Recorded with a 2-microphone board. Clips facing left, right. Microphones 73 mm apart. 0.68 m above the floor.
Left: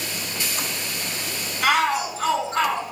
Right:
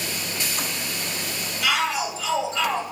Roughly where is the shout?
Left.